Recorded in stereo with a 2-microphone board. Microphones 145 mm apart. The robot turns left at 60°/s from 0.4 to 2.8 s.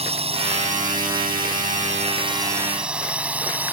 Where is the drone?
45° right (ahead or behind); by 3.7 s 10° right (ahead or behind).